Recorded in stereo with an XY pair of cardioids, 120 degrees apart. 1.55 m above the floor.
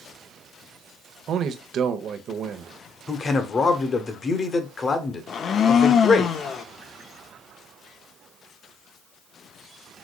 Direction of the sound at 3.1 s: 35° left.